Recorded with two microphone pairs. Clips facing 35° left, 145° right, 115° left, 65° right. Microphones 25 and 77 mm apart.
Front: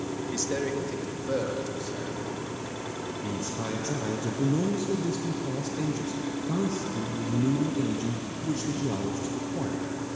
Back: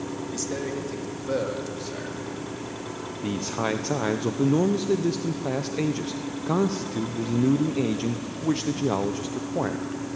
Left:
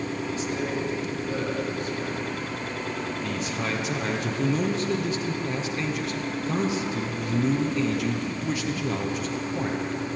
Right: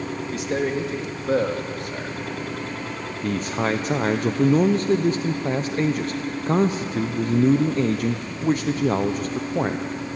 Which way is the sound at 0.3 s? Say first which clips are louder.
Front 2 dB, right 7 dB; 40° right.